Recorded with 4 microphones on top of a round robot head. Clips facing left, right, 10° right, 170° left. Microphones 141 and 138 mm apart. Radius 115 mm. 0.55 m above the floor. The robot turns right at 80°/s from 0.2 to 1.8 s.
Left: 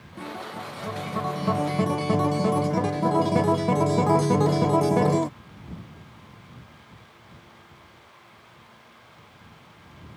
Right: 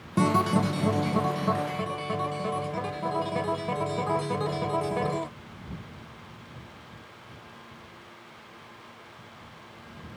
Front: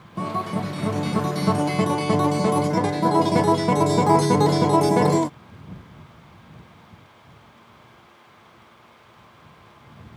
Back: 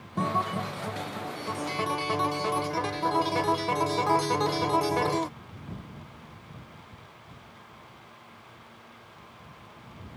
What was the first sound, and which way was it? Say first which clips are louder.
A guitar: right 12 dB, front 2 dB; 95° right.